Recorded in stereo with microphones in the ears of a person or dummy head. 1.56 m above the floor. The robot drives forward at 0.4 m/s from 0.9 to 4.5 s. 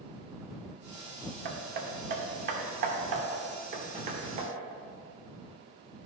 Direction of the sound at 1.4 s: 55° right (ahead or behind).